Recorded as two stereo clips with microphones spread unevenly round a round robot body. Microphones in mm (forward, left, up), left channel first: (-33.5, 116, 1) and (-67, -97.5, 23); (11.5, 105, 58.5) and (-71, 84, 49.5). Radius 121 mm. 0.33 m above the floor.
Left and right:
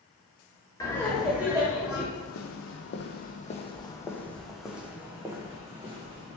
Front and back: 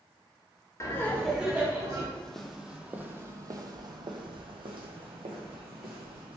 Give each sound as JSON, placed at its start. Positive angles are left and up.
{"t": 0.8, "sound": "laughter", "azimuth_deg": 30, "distance_m": 0.9}
{"t": 2.1, "sound": "footsteps", "azimuth_deg": 95, "distance_m": 1.0}